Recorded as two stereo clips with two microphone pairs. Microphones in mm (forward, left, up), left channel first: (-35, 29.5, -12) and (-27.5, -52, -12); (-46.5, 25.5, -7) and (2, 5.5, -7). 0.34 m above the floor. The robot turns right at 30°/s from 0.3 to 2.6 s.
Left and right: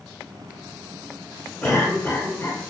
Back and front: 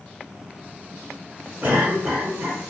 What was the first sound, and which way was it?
A cough, 35° left.